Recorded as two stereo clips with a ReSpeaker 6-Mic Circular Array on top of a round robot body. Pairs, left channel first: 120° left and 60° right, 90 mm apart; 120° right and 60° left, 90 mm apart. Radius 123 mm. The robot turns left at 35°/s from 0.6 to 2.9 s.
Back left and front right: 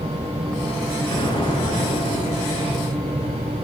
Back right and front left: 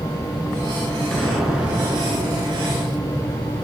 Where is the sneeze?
I don't hear a sneeze.